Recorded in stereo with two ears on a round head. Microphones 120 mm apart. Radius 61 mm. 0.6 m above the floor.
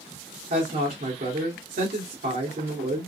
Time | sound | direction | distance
0.5 | a woman speaking | 60° right (ahead or behind) | 1.8 m